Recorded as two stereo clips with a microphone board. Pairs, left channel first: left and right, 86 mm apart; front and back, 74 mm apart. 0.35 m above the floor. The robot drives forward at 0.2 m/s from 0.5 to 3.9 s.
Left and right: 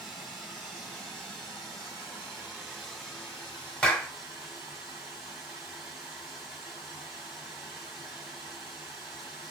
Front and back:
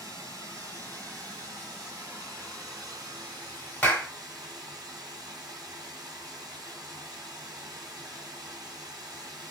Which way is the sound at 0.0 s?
170° right.